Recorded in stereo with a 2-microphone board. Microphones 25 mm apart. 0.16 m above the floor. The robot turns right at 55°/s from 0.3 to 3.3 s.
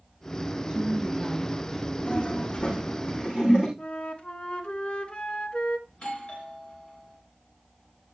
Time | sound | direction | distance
0.7 | a woman speaking | 70° right | 1.9 m
2.1 | a toilet flushing | 55° left (ahead or behind) | 7.5 m
3.8 | a flute | 55° left (ahead or behind) | 1.0 m
5.9 | a doorbell | 45° left (ahead or behind) | 3.5 m